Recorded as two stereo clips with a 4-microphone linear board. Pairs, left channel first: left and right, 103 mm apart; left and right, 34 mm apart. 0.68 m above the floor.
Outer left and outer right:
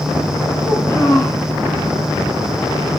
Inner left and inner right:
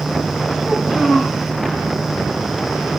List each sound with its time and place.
0.6 s a child speaking: 20° left (ahead or behind), 5 m